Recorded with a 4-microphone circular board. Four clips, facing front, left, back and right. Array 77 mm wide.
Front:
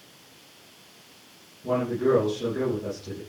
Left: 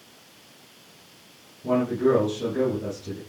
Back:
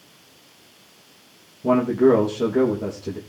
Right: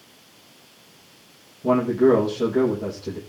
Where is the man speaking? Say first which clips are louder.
Right 4 dB, back 7 dB; 150° right, 6.5 m.